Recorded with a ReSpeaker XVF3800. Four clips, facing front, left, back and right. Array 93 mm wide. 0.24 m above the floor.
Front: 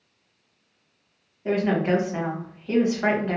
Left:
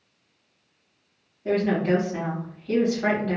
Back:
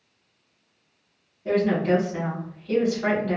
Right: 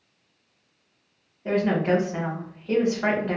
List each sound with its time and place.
1.4 s a woman speaking: 35° right, 1.5 m